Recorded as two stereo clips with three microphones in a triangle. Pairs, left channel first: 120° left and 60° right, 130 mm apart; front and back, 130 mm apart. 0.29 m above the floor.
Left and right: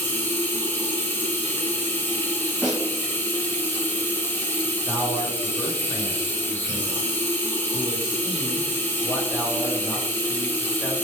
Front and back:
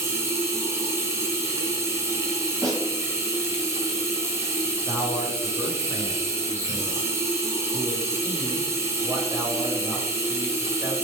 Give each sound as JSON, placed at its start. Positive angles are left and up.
{"t": 0.0, "sound": "running water", "azimuth_deg": 165, "distance_m": 0.8}
{"t": 2.6, "sound": "a snare drum", "azimuth_deg": -140, "distance_m": 1.8}
{"t": 4.9, "sound": "a man speaking", "azimuth_deg": -150, "distance_m": 1.0}